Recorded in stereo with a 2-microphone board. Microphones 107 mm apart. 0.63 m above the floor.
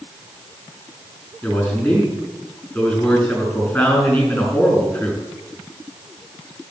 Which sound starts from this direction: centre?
A man speaking, at 1.4 s.